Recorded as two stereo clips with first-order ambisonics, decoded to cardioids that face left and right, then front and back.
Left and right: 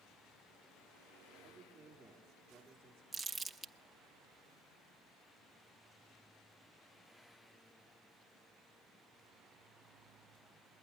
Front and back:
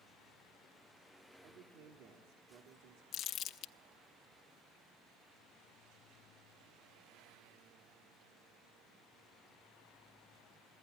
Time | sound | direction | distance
1.4 | a man speaking | 175° right | 1.5 m
3.1 | crumpling | 15° right | 0.8 m